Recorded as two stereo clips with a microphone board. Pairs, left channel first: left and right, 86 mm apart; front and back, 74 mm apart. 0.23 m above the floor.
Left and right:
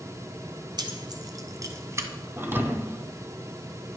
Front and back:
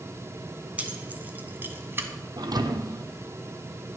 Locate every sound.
0.8 s keys jangling: 110° right, 1.7 m; by 2.1 s 135° right, 1.3 m
2.4 s a thud: 155° right, 1.1 m